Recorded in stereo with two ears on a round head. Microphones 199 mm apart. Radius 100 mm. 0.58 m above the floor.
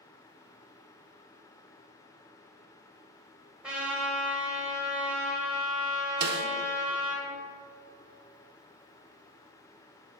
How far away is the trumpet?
About 2 m.